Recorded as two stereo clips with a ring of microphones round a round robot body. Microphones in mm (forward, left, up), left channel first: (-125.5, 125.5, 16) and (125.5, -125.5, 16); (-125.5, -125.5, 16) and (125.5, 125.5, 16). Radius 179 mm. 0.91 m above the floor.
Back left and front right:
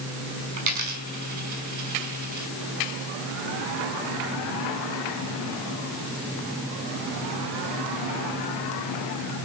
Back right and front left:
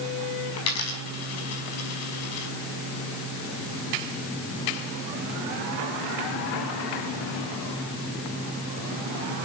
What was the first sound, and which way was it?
A dropped coin, 85° right.